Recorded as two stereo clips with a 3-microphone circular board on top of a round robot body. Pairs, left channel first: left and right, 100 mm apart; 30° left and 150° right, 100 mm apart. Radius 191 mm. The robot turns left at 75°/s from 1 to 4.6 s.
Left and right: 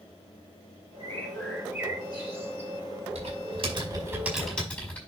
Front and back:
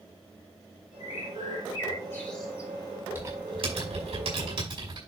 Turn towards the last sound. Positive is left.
turn(degrees=170)